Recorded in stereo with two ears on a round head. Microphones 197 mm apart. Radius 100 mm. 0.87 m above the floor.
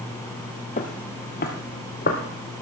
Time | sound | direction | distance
0.8 | footsteps | 35° left (ahead or behind) | 1.0 m